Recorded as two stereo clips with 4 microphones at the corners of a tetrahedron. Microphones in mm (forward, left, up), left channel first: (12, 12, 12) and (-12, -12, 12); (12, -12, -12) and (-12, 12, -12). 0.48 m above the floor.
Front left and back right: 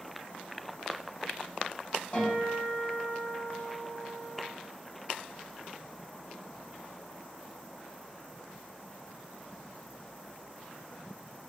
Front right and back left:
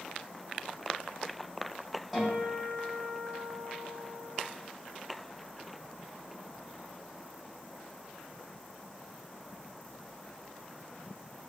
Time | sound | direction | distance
2.1 | a guitar | 50° left | 1.4 m